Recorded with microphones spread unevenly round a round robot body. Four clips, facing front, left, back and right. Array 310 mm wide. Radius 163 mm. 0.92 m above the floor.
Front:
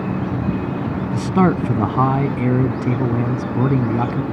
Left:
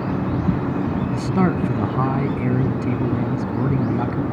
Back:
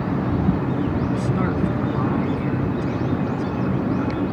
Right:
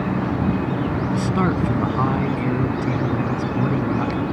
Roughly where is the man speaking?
Ahead.